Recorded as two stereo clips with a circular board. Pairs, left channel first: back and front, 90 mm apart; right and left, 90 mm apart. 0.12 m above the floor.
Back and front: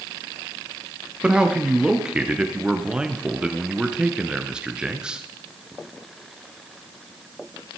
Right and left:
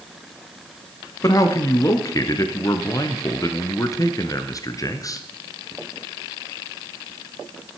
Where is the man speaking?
75° right, 1.4 m.